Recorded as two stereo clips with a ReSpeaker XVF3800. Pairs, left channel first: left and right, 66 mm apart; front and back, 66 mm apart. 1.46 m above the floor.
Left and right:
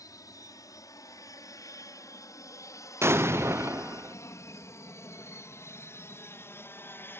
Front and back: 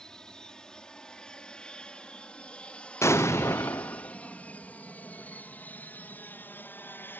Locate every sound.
0.0 s an aircraft: 80° left; by 7.2 s 45° left
3.0 s an explosion: 40° right